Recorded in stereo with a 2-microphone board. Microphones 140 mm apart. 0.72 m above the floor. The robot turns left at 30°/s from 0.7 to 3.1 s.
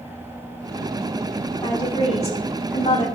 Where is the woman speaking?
145° left, 5.5 m; by 3.0 s 105° left, 5.5 m.